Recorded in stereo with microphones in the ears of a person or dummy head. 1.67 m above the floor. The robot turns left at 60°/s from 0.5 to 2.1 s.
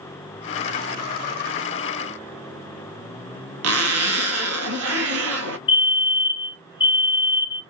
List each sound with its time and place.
3.6 s a zipper: 80° right, 0.9 m
5.7 s a fire alarm: 20° left (ahead or behind), 0.6 m